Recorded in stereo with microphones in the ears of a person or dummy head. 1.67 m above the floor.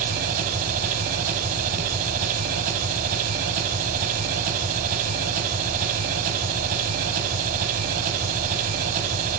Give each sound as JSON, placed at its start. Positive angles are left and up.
{"t": 0.0, "sound": "an engine running", "side_deg": -50, "distance_m": 3.0}